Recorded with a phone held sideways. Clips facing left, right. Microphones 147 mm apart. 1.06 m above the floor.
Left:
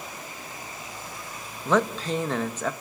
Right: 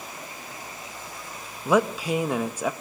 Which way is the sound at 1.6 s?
10° right (ahead or behind).